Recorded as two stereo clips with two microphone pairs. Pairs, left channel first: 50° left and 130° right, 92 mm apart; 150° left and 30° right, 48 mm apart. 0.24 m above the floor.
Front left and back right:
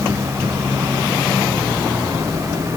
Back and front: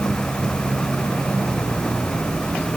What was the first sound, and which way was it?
Only background noise.